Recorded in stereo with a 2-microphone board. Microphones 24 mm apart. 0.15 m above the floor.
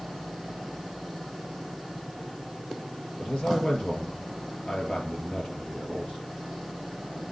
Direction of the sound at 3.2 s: 65° left (ahead or behind).